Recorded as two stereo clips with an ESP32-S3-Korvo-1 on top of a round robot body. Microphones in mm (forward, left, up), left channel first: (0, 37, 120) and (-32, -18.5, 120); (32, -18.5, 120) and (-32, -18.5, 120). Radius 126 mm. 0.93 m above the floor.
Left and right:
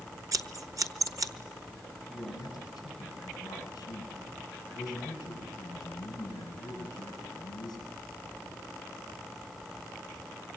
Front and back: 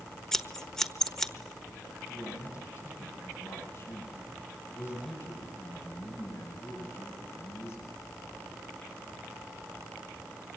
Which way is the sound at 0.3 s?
80° right.